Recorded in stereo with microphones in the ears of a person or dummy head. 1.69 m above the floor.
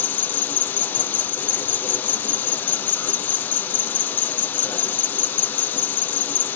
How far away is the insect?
About 1.6 m.